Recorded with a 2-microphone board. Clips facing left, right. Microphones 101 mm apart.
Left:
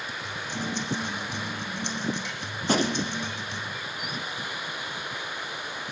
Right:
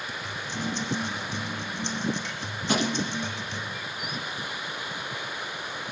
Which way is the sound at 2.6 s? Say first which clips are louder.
Left 1 dB; 40° left (ahead or behind).